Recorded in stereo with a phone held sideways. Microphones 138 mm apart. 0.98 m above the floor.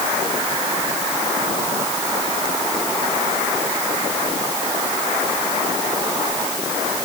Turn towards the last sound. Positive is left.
No sound to turn to.